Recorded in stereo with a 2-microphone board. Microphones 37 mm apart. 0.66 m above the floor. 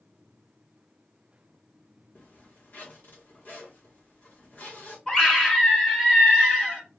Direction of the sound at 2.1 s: 50° left (ahead or behind).